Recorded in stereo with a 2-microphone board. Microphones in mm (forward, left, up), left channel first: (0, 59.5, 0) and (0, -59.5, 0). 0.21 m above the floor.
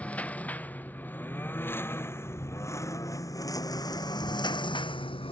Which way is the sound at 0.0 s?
10° left (ahead or behind).